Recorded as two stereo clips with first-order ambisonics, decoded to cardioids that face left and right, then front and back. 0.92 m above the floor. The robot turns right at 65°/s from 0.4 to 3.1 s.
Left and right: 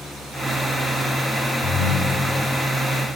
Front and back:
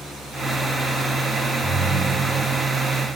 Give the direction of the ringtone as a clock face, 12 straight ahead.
9 o'clock.